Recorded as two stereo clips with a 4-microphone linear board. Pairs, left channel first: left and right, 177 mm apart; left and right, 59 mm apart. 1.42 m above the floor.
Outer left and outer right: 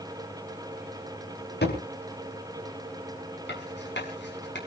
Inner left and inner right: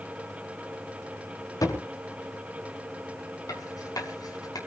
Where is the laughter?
I don't hear laughter.